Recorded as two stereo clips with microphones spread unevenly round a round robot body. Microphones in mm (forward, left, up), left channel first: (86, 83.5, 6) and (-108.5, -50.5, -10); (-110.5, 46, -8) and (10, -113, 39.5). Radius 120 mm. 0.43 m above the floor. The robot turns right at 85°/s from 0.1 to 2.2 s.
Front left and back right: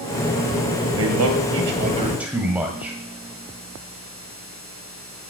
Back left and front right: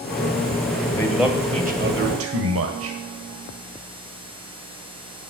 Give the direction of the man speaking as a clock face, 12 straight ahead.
6 o'clock.